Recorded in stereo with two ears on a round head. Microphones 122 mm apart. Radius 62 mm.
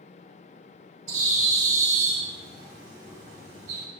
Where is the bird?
60° right (ahead or behind), 2.5 m.